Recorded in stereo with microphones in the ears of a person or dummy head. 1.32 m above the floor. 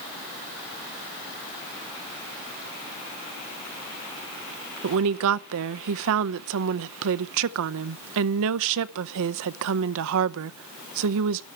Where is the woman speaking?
70° right (ahead or behind), 0.6 m.